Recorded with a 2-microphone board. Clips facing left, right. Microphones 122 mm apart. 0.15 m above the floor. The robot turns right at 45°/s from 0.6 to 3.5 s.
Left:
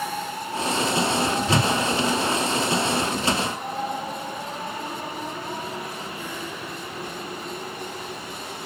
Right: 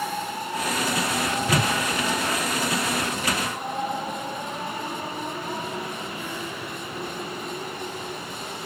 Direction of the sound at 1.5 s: 25° left (ahead or behind).